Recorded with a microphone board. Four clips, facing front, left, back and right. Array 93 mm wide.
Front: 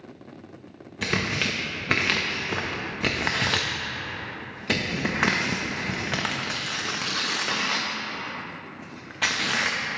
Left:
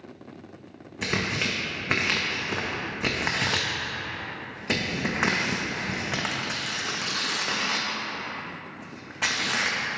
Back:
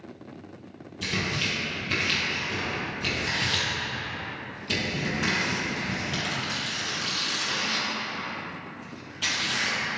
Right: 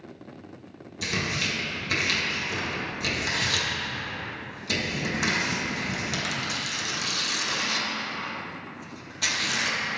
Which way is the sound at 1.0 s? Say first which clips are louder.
Left 2 dB, front 3 dB; 30° left.